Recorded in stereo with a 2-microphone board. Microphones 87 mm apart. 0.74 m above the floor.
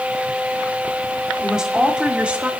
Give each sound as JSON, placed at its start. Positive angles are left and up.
{"t": 1.4, "sound": "a woman speaking", "side_deg": -5, "distance_m": 2.0}